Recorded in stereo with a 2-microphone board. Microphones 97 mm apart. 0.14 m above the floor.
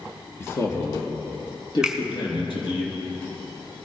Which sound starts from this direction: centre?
A finger snap, at 1.8 s.